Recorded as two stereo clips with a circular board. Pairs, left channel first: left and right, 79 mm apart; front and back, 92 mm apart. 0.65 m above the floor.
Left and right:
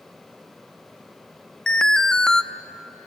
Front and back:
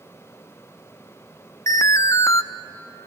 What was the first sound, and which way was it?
An alarm, 15° left.